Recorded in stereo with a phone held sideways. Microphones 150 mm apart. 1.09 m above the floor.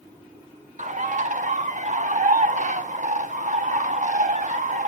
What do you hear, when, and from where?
0.8 s a bird: 50° right (ahead or behind), 0.8 m